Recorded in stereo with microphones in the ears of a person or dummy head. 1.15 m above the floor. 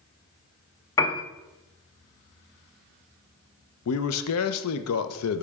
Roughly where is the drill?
I don't hear a drill.